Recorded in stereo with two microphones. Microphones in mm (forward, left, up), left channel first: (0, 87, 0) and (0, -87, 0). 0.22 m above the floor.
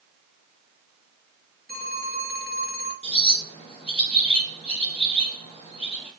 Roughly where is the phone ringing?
Right.